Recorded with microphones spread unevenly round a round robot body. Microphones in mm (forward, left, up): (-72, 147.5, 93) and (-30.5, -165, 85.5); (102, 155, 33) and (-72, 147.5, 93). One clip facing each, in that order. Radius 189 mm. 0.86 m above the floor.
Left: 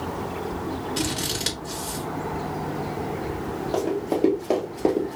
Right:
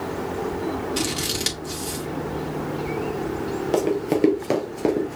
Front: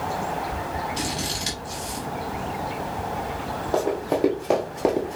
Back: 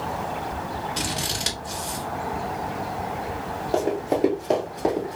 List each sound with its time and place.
1.0 s scissors: 160° right, 1.3 m
3.7 s running footsteps: 120° right, 1.2 m; by 5.2 s 35° right, 0.8 m